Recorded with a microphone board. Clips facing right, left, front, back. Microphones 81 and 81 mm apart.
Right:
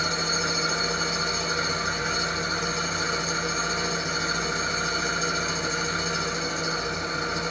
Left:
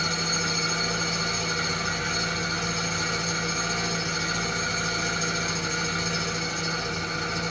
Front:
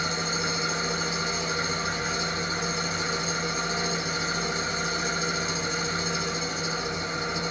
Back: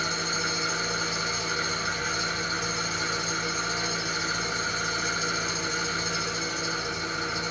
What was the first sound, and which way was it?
An engine running, 50° right.